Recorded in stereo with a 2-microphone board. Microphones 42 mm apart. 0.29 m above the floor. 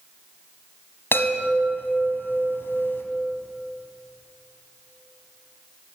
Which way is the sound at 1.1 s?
65° left (ahead or behind).